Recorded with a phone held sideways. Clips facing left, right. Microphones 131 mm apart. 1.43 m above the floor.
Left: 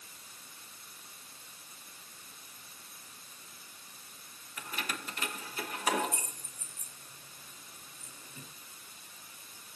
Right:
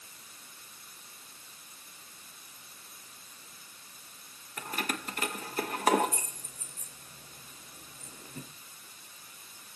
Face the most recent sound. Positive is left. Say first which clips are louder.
# right 5 dB
turn(degrees=-50)  # may be behind; listen again after turning